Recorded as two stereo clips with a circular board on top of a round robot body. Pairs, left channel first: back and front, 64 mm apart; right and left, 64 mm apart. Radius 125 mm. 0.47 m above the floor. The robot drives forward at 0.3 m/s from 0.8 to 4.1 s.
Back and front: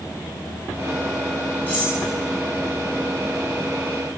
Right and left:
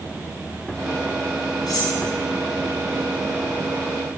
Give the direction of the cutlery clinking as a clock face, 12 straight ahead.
4 o'clock.